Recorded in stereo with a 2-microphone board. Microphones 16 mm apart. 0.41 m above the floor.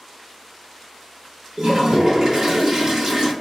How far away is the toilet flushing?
About 0.9 m.